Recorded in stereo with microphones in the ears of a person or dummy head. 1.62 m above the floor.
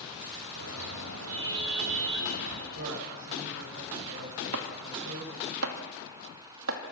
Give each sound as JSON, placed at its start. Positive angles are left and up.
{"t": 0.6, "sound": "a car horn", "side_deg": -70, "distance_m": 3.5}
{"t": 2.8, "sound": "a man speaking", "side_deg": -65, "distance_m": 7.5}
{"t": 4.5, "sound": "chopping", "side_deg": -75, "distance_m": 2.5}